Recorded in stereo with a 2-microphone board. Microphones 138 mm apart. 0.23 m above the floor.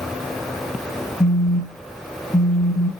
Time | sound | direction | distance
1.2 | a phone buzzing | 35° left (ahead or behind) | 0.7 m